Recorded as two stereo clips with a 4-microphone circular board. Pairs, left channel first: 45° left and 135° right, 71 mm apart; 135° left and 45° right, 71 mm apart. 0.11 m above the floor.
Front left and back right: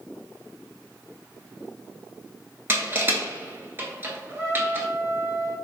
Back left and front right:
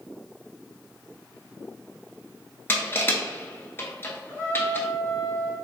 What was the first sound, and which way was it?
Crushing, straight behind.